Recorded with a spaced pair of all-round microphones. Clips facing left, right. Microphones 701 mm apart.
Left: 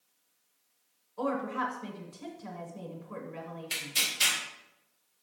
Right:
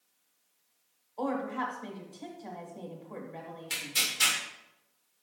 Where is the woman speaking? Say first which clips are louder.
Even; 40° left (ahead or behind), 1.5 m.